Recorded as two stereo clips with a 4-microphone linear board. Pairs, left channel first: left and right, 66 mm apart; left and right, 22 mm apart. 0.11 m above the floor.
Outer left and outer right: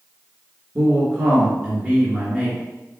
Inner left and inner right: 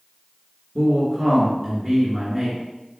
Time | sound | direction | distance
0.8 | a man speaking | 20° right (ahead or behind) | 1.6 m